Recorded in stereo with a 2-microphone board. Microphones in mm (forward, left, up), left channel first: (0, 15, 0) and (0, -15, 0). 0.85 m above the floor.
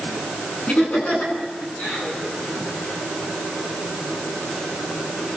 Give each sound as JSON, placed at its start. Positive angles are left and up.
{"t": 0.7, "sound": "laughter", "side_deg": 55, "distance_m": 10.0}